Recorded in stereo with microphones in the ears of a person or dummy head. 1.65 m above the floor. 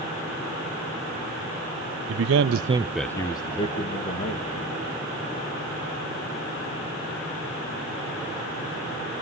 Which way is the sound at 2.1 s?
80° right.